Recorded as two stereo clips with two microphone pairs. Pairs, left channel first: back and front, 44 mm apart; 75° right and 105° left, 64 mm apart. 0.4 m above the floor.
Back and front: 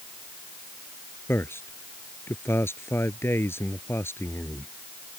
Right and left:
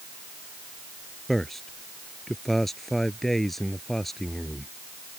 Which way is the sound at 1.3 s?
160° right.